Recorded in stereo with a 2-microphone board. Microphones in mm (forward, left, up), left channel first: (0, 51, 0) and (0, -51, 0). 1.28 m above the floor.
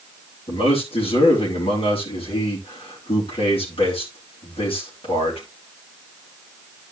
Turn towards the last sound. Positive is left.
turn(degrees=75)  # may be behind; listen again after turning